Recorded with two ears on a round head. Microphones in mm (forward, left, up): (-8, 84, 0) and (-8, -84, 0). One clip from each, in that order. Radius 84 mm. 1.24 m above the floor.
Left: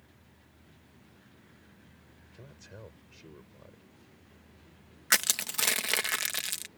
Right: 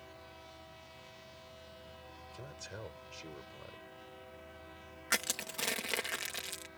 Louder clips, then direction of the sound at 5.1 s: Left 7 dB; 40° left (ahead or behind).